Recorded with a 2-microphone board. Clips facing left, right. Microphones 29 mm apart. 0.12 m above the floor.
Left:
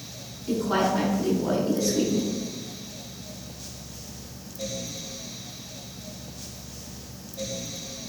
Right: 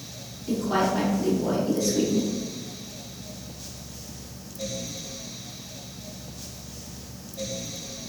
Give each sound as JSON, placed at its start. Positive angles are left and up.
{"t": 0.5, "sound": "a woman speaking", "side_deg": 15, "distance_m": 1.1}